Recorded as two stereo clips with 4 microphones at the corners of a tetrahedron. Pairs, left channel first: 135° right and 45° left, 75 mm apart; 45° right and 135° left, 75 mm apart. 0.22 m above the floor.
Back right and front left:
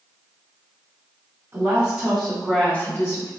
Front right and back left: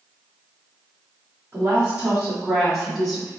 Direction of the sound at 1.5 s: 80° left.